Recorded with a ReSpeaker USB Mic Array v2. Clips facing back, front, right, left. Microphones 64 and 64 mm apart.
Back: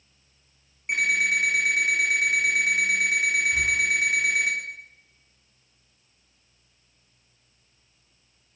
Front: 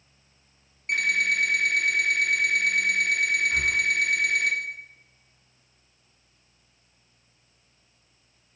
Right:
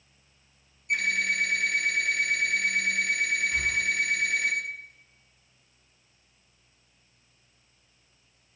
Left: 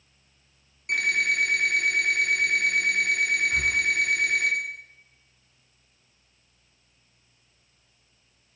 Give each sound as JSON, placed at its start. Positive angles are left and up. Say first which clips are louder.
{"t": 0.9, "sound": "an alarm clock", "louder": "back 1 dB, left 2 dB", "azimuth_deg": 105, "distance_m": 3.5}
{"t": 3.5, "sound": "breathing", "louder": "even, left 3 dB", "azimuth_deg": 55, "distance_m": 1.8}